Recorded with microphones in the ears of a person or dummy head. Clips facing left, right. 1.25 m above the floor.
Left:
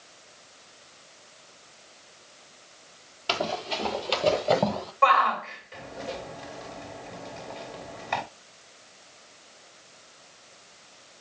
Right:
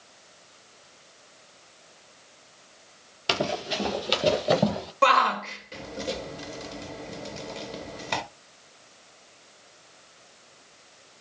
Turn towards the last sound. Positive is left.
turn(degrees=-50)  # may be behind; listen again after turning